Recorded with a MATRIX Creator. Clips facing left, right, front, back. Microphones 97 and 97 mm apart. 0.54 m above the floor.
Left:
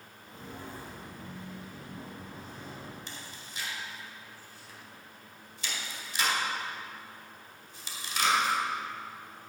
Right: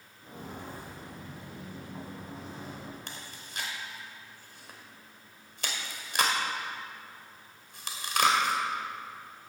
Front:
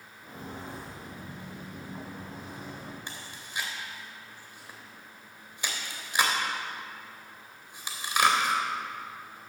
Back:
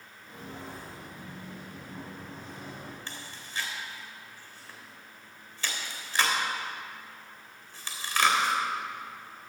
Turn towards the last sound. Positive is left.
turn(degrees=-75)